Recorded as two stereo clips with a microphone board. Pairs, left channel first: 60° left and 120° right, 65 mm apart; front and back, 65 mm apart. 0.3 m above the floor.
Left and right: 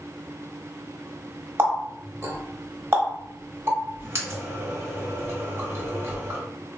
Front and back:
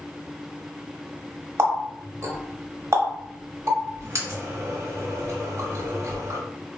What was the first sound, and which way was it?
A running tap, 155° right.